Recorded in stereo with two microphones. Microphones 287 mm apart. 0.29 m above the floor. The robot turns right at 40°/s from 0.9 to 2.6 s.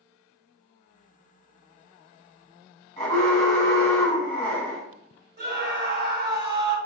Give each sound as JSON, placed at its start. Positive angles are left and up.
{"t": 3.0, "sound": "an alarm", "side_deg": 25, "distance_m": 1.5}
{"t": 5.4, "sound": "a scream", "side_deg": -35, "distance_m": 1.5}